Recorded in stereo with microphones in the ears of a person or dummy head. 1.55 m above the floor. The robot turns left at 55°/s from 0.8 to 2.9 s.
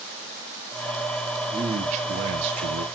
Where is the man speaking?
20° right, 1.3 m; by 2.9 s 90° right, 1.3 m.